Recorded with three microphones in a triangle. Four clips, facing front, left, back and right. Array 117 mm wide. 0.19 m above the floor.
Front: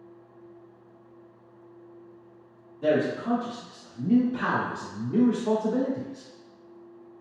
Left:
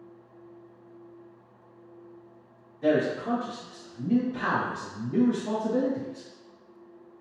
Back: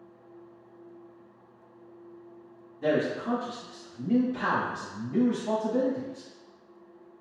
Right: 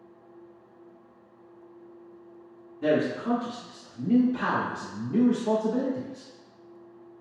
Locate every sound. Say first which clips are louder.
2.8 s a man speaking: even, front 2 dB; 80° right, 1.6 m; by 6.3 s 5° left, 1.9 m